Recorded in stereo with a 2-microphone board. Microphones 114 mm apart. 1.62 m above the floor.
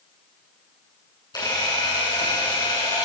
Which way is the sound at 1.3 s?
35° left (ahead or behind).